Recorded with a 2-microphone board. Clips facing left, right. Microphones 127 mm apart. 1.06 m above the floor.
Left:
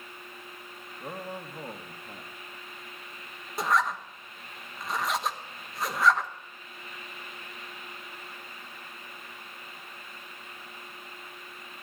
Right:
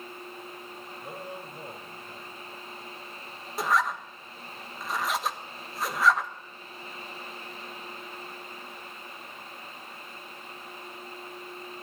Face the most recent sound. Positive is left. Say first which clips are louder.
# even
turn(degrees=0)  # may be behind; listen again after turning